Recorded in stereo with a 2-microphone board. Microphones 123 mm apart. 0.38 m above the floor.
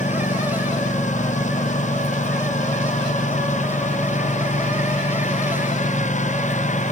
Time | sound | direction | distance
0.0 | a lawn mower | 85° left | ?